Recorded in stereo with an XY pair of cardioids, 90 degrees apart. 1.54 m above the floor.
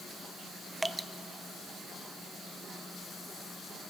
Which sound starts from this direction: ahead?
Dripping, at 0.8 s.